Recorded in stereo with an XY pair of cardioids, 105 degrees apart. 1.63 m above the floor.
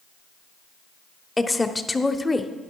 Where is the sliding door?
I don't hear a sliding door.